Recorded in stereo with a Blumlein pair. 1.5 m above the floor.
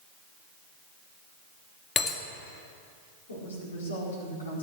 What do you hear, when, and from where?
2.0 s breaking glass: 25° left, 2.0 m
3.3 s a woman speaking: 70° left, 5 m